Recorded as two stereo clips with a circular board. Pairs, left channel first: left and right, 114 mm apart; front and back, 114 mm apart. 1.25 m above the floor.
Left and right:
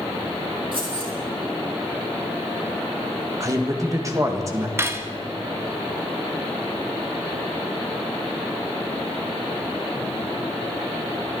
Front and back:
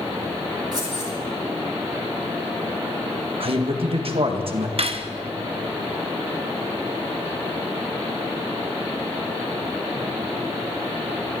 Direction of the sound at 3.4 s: 150° right.